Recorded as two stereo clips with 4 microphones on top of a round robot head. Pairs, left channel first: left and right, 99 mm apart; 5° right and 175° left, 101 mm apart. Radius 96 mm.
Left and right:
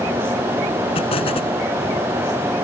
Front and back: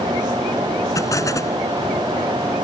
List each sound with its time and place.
0.9 s an explosion: 50° left